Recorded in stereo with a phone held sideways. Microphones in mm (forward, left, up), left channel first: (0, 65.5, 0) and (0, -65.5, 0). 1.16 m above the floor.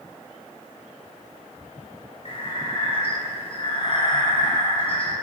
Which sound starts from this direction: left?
Breathing, at 2.2 s.